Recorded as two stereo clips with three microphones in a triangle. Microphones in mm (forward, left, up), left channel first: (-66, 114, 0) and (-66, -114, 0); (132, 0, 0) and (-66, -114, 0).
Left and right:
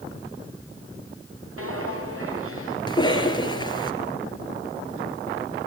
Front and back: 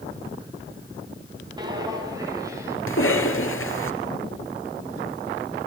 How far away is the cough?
About 3.5 m.